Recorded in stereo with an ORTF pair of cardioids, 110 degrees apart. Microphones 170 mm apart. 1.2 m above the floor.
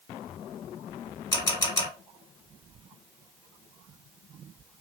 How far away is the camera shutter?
About 1.9 m.